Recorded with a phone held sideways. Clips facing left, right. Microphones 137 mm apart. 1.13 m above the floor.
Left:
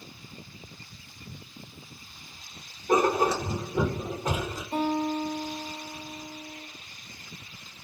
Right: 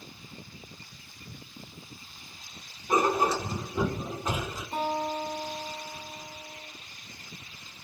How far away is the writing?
About 1.1 m.